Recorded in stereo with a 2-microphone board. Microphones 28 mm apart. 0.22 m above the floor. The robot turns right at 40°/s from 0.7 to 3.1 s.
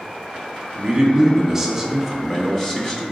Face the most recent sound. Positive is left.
turn(degrees=35)